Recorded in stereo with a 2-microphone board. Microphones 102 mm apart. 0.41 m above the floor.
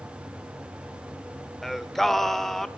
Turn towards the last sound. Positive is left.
turn(degrees=0)  # may be behind; listen again after turning